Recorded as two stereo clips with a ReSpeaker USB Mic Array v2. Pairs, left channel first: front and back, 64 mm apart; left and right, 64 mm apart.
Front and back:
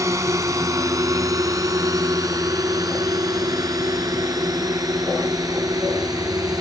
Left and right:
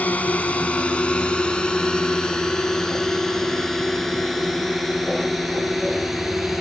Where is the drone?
155° left; by 6.6 s straight behind.